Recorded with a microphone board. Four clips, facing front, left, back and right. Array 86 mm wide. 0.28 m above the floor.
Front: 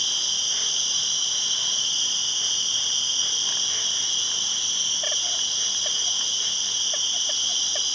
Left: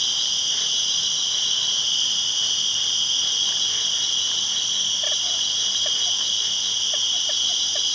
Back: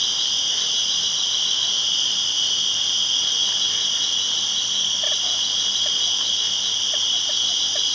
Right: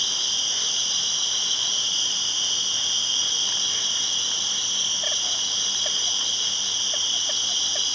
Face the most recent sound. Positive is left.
turn(degrees=155)